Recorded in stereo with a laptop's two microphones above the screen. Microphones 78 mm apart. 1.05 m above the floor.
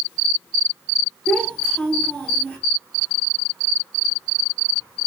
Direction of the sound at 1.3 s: 15° left (ahead or behind).